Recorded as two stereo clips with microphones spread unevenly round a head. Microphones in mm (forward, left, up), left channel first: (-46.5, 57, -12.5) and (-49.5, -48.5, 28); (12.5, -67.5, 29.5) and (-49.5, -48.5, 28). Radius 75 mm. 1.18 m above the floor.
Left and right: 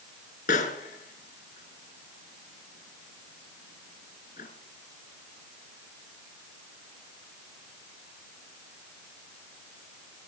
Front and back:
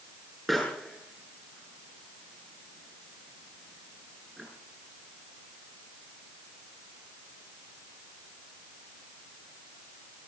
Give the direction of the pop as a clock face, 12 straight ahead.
10 o'clock.